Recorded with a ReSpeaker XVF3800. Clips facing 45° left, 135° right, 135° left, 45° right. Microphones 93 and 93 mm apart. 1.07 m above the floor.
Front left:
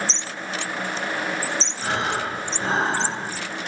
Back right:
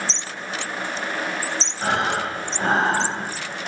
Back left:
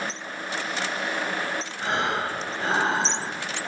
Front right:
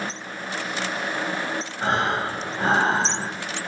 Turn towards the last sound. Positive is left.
turn(degrees=-95)